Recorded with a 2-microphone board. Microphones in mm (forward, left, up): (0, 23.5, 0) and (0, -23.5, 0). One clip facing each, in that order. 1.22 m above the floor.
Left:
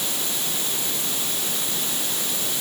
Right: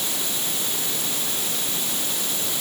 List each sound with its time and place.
Only background noise.